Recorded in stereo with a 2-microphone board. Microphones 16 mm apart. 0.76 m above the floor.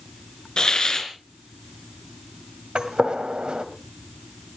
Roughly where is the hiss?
Left.